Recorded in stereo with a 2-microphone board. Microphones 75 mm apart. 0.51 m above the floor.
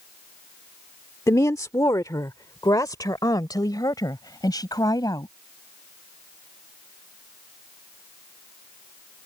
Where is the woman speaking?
45° left (ahead or behind); by 5.3 s 60° left (ahead or behind).